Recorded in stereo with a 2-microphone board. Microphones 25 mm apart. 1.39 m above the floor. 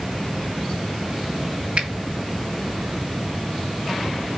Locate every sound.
1.8 s a finger snap: 65° right (ahead or behind), 2 m